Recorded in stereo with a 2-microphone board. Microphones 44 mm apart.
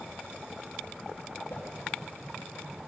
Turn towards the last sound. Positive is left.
turn(degrees=55)  # may be behind; listen again after turning